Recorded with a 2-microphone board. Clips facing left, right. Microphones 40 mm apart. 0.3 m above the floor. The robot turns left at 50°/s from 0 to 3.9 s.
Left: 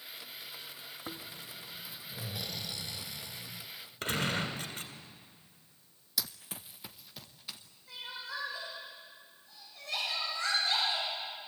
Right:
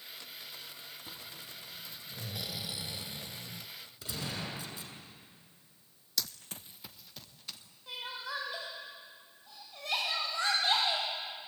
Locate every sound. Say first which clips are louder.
1.1 s snoring: left 3 dB; 65° left, 1.2 m; by 3.7 s 65° right, 1.2 m
4.0 s a gunshot: left 7 dB; 55° left (ahead or behind), 3 m
6.2 s running footsteps: even; 10° left (ahead or behind), 0.5 m
7.9 s crying: right 2 dB; 80° right, 8 m